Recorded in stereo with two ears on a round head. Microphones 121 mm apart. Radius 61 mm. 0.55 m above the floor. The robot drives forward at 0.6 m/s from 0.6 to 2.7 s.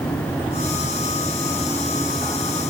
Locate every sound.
Only background noise.